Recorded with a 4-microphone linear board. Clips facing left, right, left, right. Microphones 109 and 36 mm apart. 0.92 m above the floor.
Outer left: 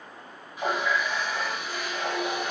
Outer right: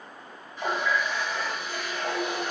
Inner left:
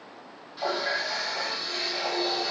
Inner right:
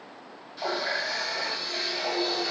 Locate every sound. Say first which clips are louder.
0.6 s a running tap: even, inner left 1 dB; 10° left (ahead or behind), 1.2 m